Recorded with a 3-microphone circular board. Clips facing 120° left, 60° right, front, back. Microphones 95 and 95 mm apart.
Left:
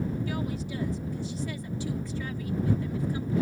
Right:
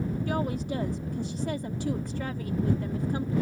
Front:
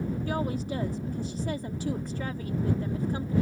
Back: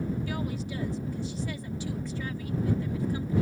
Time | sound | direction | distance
0.3 | a woman speaking | 35° right | ?